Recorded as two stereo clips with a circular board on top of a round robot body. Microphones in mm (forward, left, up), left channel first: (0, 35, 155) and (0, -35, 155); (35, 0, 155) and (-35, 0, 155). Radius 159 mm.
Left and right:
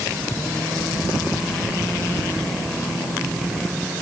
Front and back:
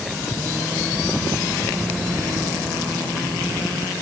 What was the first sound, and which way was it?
Only background noise.